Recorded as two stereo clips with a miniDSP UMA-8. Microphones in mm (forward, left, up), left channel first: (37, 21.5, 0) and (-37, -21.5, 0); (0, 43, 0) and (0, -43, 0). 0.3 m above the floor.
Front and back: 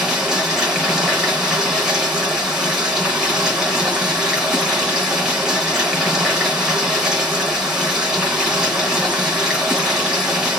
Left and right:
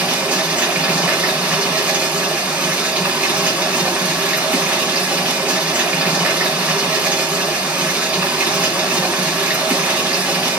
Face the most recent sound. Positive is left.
turn(degrees=-85)